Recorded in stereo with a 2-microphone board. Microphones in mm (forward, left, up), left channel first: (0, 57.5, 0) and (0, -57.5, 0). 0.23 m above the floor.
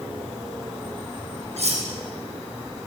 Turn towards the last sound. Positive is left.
turn(degrees=-75)  # may be behind; listen again after turning